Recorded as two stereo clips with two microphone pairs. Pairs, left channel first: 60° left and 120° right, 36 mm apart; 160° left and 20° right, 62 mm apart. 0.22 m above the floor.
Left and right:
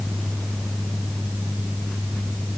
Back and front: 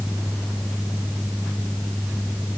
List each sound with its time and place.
Only background noise.